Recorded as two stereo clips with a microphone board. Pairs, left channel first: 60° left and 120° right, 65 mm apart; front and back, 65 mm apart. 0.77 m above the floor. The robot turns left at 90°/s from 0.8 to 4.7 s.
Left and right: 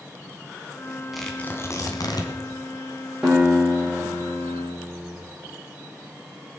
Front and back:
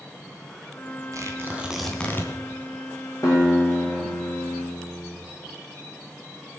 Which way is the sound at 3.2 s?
35° right.